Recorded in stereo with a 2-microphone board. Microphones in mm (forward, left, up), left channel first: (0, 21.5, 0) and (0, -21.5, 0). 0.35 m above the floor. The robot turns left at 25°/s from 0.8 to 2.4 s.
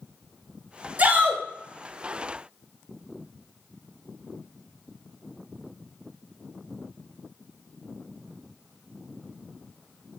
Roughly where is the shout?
Right.